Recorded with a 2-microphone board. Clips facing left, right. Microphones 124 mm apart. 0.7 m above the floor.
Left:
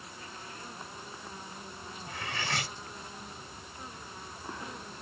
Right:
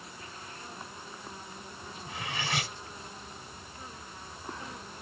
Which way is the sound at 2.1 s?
15° right (ahead or behind).